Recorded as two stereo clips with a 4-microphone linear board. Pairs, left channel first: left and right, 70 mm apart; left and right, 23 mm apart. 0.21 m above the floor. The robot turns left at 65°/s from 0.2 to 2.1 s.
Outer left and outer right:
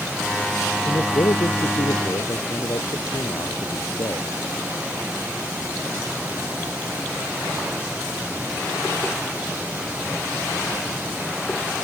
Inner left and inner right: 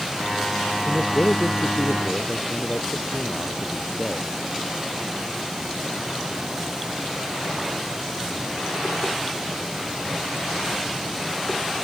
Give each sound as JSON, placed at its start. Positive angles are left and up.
{"t": 0.8, "sound": "a man speaking", "azimuth_deg": 140}